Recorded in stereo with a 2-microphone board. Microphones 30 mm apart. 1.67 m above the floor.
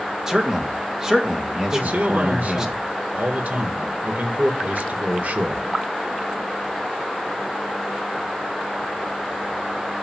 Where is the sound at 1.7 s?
65° right (ahead or behind), 1.7 m.